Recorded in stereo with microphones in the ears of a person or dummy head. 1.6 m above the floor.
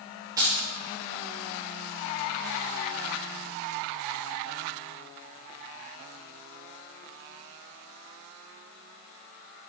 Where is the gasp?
No gasp in this recording.